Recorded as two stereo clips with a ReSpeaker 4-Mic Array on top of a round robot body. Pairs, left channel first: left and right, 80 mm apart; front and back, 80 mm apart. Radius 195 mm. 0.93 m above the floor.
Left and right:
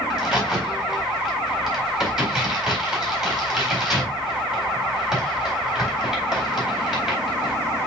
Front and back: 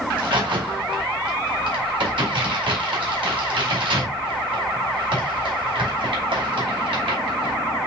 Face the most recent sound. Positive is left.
turn(degrees=-175)